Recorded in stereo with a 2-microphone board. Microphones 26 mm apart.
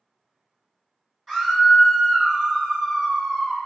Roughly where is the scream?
Centre.